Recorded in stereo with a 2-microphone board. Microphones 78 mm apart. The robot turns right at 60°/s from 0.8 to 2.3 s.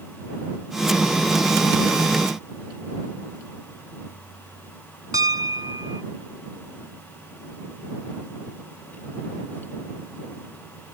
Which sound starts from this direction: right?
A piano, at 5.1 s.